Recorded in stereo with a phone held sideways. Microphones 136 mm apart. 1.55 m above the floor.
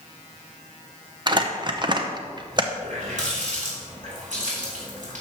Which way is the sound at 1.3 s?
35° right (ahead or behind).